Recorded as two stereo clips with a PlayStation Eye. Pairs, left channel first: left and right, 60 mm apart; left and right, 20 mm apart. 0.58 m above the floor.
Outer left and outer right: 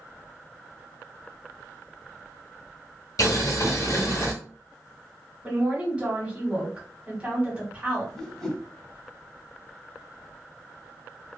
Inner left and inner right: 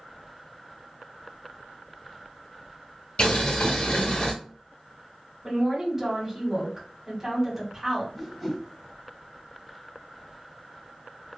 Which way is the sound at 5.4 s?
20° right (ahead or behind).